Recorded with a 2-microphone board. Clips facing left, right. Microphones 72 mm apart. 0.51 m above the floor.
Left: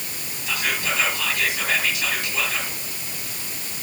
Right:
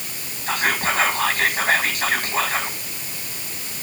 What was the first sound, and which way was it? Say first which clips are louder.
Whispering: right 4 dB; 45° right (ahead or behind).